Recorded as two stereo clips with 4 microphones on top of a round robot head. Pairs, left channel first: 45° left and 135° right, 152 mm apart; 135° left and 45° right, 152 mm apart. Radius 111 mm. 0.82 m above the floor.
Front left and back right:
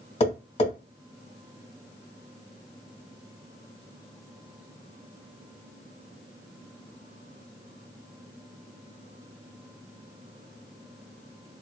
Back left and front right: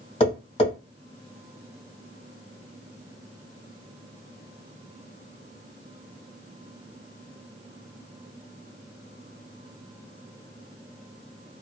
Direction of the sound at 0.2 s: 85° left.